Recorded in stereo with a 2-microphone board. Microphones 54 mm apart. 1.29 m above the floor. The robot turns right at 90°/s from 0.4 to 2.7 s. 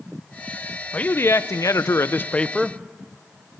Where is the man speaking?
25° left, 0.7 m; by 2.8 s straight behind, 0.7 m.